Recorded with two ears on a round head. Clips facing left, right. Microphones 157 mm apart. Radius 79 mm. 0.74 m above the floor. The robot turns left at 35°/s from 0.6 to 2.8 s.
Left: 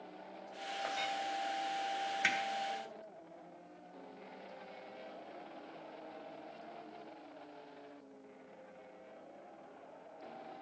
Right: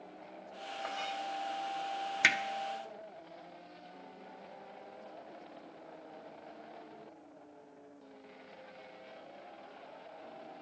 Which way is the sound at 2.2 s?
70° right (ahead or behind).